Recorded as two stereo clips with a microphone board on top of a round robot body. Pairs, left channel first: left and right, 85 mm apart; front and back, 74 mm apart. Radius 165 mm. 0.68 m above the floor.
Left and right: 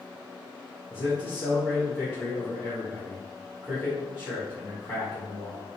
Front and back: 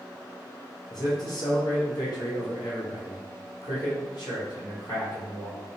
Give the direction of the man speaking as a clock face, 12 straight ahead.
11 o'clock.